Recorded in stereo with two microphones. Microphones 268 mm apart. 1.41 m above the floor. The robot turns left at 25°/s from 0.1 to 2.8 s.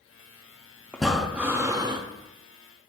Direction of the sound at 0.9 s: 5° left (ahead or behind).